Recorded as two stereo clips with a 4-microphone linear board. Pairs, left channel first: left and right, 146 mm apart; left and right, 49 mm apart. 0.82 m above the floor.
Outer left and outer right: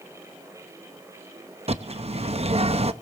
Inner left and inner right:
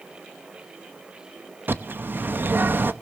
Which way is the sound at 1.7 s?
50° right (ahead or behind).